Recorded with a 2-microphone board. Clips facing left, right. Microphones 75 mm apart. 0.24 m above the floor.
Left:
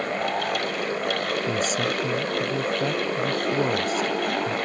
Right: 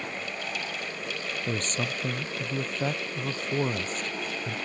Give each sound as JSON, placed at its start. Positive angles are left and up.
{"t": 1.5, "sound": "a man speaking", "side_deg": 10}